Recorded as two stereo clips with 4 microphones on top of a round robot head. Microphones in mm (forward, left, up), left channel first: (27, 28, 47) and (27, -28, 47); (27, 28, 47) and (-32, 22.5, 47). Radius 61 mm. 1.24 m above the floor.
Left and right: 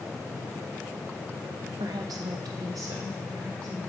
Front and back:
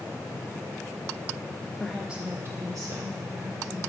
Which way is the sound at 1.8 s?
75° right.